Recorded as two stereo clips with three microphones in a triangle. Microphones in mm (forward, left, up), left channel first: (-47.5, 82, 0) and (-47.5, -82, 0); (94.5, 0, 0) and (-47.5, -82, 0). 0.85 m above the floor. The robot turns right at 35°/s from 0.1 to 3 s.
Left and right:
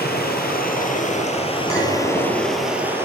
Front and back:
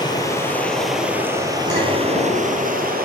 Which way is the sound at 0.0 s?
95° left.